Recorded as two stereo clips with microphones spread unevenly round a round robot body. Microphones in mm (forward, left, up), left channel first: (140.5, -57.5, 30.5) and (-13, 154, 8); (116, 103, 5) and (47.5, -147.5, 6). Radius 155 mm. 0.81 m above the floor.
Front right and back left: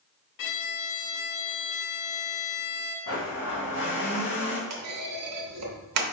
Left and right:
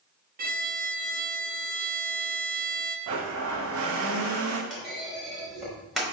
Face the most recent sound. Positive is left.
turn(degrees=165)